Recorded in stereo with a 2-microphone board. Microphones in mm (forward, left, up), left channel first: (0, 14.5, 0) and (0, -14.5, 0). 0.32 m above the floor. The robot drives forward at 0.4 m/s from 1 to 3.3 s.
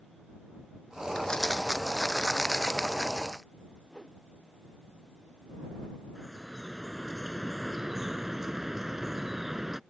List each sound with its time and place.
1.1 s crumpling: 25° left (ahead or behind); by 3.4 s 20° left (ahead or behind)
3.9 s a whoosh: 20° left (ahead or behind)
6.2 s dripping: 10° right (ahead or behind)